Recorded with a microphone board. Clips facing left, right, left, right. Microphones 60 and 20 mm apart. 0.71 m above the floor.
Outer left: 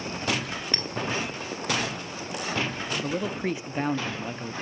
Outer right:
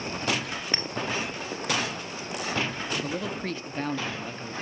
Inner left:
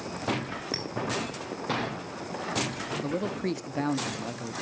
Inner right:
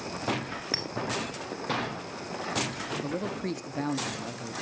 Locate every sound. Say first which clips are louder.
0.7 s a clink: outer right 3 dB, inner right 3 dB; 20° right (ahead or behind), 3 m
3.0 s a man speaking: outer left 3 dB, inner left 4 dB; 15° left (ahead or behind), 0.7 m